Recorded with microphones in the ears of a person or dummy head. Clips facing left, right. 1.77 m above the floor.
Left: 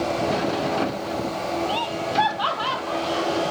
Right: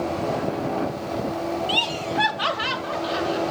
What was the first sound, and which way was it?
Laughter, 35° right (ahead or behind).